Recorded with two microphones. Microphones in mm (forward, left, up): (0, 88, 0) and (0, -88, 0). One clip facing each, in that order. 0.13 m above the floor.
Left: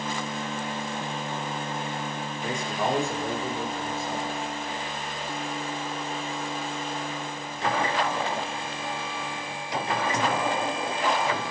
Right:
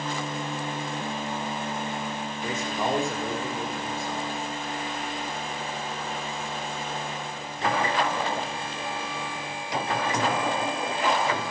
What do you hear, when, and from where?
2.4 s a man speaking: 5° right (ahead or behind), 7 m; by 4.3 s 10° left (ahead or behind), 8.5 m